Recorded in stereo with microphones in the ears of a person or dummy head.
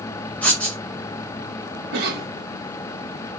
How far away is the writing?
About 1.2 m.